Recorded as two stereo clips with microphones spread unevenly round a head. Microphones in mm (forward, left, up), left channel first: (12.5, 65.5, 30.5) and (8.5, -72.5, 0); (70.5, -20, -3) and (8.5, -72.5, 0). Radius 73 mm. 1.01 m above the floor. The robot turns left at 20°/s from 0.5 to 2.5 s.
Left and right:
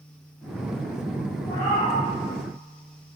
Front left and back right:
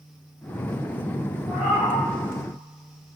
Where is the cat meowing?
150° left, 1.6 m; by 2.0 s 140° left, 1.6 m.